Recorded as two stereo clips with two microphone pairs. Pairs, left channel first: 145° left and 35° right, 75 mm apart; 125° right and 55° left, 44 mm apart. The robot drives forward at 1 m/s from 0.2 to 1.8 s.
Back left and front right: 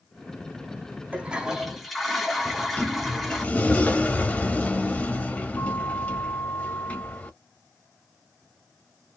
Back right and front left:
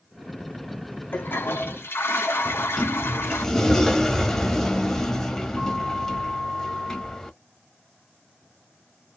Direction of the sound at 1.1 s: 100° right.